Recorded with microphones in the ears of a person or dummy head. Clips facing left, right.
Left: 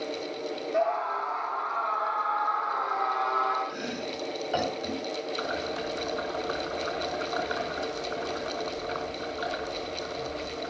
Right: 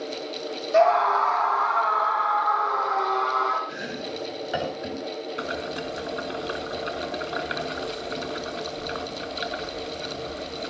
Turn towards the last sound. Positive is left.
turn(degrees=-35)  # may be behind; listen again after turning